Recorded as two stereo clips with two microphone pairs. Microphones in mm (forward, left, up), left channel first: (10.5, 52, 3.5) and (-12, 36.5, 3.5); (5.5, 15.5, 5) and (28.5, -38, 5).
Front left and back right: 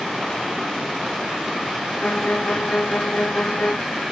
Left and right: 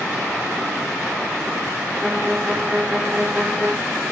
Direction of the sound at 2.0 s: 10° left.